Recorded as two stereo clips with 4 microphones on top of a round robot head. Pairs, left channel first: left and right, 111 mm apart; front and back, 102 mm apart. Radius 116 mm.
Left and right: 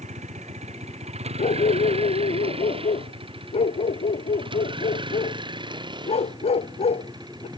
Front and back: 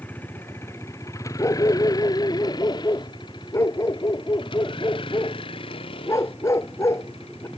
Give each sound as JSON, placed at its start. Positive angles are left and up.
{"t": 0.0, "sound": "a vehicle", "azimuth_deg": -75}
{"t": 1.4, "sound": "a dog barking", "azimuth_deg": 60}